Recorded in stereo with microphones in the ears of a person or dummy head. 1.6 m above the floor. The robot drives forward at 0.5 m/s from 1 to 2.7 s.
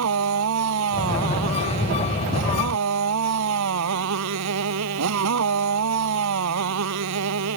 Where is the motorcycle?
85° right.